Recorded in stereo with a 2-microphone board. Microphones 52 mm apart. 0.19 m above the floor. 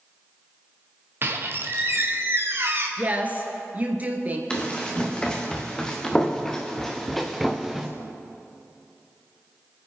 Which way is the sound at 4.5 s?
15° left (ahead or behind).